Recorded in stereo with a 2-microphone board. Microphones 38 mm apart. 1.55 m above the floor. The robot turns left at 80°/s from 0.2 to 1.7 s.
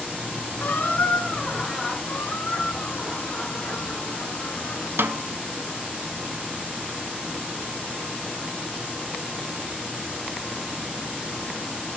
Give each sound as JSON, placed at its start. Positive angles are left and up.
{"t": 0.6, "sound": "a squeak", "azimuth_deg": 115, "distance_m": 2.5}
{"t": 2.1, "sound": "a squeak", "side_deg": 55, "distance_m": 1.7}
{"t": 5.0, "sound": "a snare drum", "side_deg": -70, "distance_m": 0.6}